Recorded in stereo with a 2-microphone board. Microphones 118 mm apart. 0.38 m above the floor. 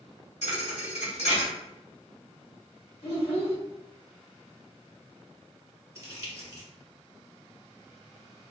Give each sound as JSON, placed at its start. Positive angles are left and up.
{"t": 0.4, "sound": "a thud", "side_deg": 70, "distance_m": 1.1}
{"t": 3.0, "sound": "a child speaking", "side_deg": 60, "distance_m": 1.5}
{"t": 6.0, "sound": "crumpling", "side_deg": -25, "distance_m": 0.9}